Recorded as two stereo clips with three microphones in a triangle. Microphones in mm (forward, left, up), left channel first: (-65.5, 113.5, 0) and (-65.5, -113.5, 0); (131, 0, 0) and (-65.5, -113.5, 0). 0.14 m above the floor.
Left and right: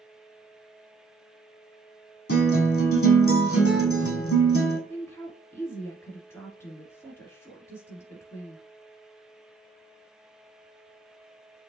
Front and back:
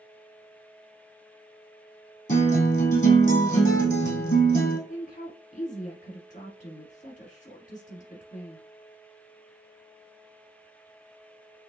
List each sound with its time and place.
2.3 s a guitar: 85° left, 1.7 m
4.9 s a woman speaking: 20° left, 1.3 m